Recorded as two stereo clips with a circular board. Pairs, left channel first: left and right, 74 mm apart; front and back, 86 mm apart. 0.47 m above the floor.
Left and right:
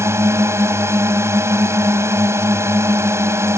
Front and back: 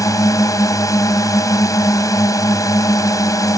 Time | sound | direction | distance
0.0 | a drone | 45° right | ?